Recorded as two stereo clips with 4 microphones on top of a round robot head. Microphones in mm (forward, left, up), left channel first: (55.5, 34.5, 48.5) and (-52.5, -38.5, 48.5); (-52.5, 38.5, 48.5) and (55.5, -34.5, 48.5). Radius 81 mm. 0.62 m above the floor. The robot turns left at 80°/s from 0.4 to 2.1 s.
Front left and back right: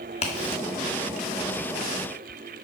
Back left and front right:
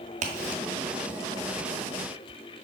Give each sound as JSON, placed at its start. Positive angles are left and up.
{"t": 0.2, "sound": "a crack", "azimuth_deg": -5, "distance_m": 1.7}